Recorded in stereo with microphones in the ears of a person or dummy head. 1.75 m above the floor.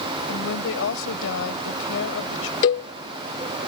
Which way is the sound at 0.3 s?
75° left (ahead or behind).